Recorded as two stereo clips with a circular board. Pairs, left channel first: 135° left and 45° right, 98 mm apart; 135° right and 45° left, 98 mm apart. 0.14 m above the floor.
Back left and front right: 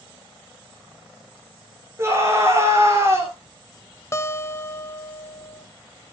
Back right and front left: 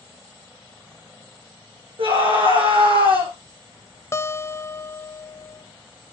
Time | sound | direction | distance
2.0 | a scream | 20° left | 6.5 m
4.1 | a guitar | straight behind | 0.6 m